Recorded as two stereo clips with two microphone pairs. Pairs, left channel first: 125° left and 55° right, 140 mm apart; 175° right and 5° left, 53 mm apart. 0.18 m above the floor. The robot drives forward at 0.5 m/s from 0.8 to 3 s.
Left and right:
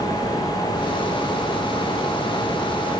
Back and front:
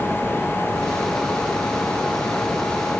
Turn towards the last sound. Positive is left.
No sound to turn to.